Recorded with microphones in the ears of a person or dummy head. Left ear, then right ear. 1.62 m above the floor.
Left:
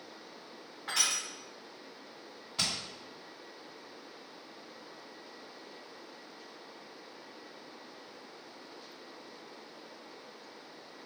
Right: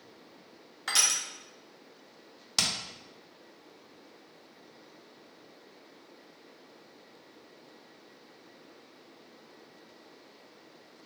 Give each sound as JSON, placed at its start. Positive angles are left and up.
{"t": 0.9, "sound": "crushing", "side_deg": -80, "distance_m": 1.1}
{"t": 2.6, "sound": "hammering", "side_deg": -70, "distance_m": 1.0}